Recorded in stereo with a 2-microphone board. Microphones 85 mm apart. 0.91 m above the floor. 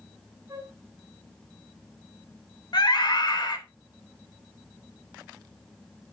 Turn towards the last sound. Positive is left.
turn(degrees=55)  # may be behind; listen again after turning